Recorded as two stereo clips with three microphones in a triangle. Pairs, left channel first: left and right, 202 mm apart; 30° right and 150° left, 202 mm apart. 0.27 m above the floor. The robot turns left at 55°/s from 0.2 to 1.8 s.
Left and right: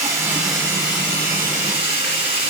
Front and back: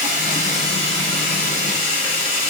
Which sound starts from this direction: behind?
Running water, at 0.0 s.